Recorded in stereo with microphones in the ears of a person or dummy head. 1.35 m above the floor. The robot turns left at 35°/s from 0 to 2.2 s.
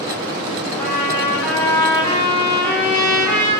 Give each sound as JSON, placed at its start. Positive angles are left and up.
{"t": 0.8, "sound": "a trumpet", "azimuth_deg": 160, "distance_m": 1.8}